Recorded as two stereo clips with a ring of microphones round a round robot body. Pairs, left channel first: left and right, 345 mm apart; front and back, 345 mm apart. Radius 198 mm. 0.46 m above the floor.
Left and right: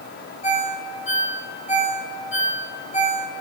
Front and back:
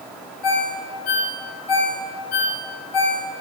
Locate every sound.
0.4 s a ringtone: 20° left, 3.5 m